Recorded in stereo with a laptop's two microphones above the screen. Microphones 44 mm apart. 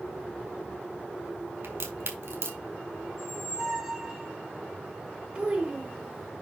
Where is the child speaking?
25° right (ahead or behind), 3 m.